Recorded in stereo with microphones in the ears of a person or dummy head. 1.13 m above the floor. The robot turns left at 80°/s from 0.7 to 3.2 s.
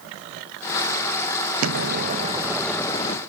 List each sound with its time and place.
1.6 s an explosion: 100° right, 0.9 m; by 3.2 s 135° left, 0.9 m